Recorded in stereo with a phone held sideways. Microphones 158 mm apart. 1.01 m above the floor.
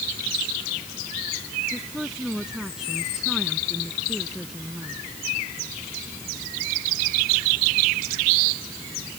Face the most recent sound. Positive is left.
turn(degrees=-5)  # may be behind; listen again after turning